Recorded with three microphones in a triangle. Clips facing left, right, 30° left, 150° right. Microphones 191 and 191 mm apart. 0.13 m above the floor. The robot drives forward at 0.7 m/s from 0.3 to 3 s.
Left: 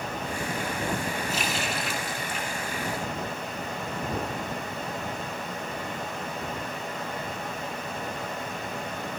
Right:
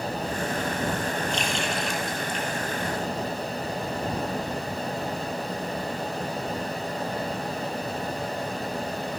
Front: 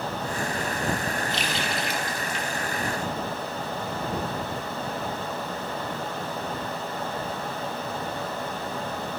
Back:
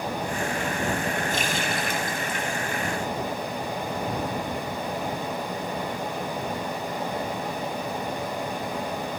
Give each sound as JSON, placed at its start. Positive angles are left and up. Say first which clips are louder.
{"t": 1.3, "sound": "a running tap", "louder": "right 2 dB, back 2 dB", "azimuth_deg": 175, "distance_m": 2.0}